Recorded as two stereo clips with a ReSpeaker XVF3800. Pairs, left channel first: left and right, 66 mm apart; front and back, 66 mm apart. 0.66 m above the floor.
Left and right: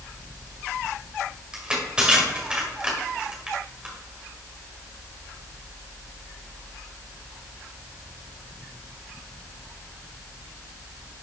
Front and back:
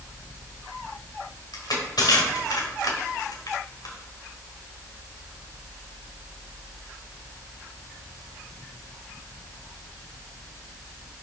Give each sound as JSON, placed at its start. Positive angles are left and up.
{"t": 1.5, "sound": "crushing", "azimuth_deg": -15, "distance_m": 1.7}